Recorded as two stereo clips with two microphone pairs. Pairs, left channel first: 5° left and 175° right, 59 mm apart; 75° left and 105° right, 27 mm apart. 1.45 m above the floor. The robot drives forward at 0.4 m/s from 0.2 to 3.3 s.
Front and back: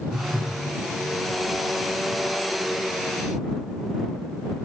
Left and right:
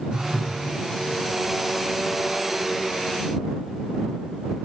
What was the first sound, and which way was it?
A phone buzzing, 115° right.